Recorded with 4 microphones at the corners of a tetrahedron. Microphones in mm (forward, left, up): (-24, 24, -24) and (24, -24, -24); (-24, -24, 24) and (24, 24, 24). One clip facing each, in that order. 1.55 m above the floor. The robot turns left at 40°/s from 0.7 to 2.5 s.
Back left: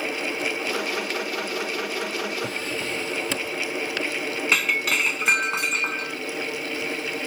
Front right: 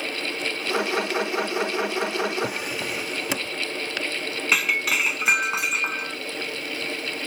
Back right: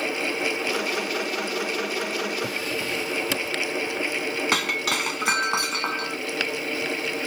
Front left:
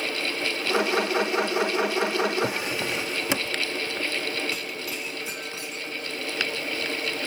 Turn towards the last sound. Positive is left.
turn(degrees=-135)